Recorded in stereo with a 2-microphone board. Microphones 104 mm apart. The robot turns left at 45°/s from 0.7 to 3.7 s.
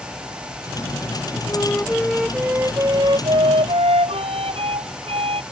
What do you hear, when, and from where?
1.5 s a flute: 30° left; by 5.4 s 70° right